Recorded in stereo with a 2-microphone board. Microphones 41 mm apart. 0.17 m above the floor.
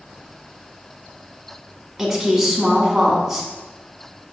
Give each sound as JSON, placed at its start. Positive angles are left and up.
{"t": 2.0, "sound": "a woman speaking", "side_deg": -10, "distance_m": 1.2}